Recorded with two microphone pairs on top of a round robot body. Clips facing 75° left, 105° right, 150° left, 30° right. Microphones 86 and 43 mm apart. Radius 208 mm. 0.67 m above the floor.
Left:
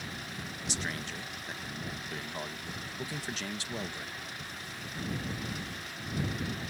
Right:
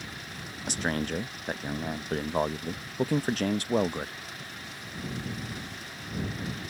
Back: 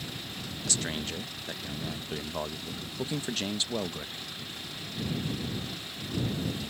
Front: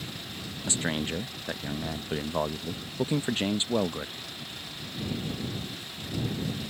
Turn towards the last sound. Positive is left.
turn(degrees=-90)